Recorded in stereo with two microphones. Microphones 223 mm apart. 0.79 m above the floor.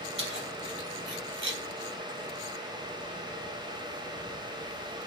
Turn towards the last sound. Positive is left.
turn(degrees=-5)  # may be behind; listen again after turning